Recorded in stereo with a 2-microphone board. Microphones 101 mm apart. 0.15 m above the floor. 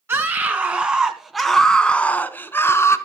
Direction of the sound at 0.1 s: 20° right (ahead or behind).